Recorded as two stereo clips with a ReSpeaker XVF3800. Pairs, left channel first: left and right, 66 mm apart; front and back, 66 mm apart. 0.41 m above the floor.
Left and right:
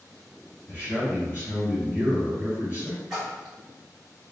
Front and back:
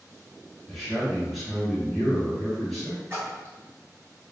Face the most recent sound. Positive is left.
turn(degrees=-170)